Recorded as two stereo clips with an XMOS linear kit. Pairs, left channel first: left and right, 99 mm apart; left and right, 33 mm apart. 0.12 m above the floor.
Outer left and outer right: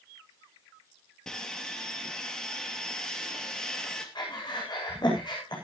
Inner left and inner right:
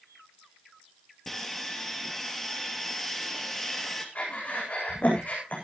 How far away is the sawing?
About 2.5 m.